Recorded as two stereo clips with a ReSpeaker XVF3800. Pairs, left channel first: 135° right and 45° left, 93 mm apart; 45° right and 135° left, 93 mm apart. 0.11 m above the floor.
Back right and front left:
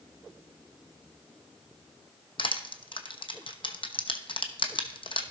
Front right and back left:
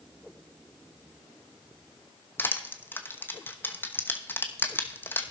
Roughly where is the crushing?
Behind right.